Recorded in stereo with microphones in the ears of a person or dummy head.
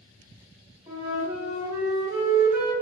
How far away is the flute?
About 1.1 m.